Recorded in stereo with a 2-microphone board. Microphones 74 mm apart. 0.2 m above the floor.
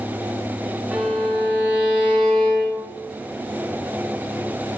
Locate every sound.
0.9 s a violin: 15° right (ahead or behind), 1.2 m